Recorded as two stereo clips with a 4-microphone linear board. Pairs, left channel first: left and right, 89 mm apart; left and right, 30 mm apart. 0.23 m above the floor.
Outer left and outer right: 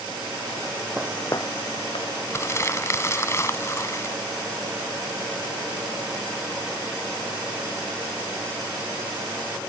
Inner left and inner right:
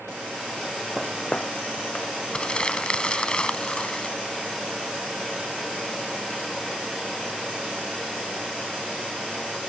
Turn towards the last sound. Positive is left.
turn(degrees=35)  # may be behind; listen again after turning